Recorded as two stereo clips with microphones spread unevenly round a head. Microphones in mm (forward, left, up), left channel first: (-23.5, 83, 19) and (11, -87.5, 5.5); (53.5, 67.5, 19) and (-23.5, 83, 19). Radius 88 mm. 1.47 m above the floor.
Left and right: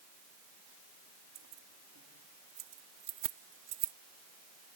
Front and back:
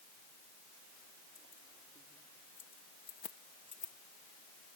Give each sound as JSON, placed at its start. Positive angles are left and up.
{"t": 1.4, "sound": "keys jangling", "azimuth_deg": -60}